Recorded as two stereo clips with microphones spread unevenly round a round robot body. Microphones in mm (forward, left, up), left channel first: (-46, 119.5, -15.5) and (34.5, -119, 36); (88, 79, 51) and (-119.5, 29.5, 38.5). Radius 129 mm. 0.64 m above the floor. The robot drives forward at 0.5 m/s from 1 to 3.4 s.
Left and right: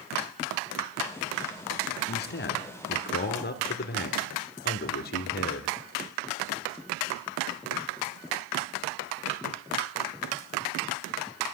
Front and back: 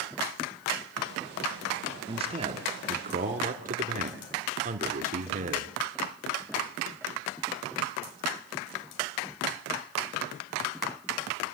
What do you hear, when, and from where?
2.1 s a man speaking: 135° left, 1.8 m; by 5.8 s 150° left, 2 m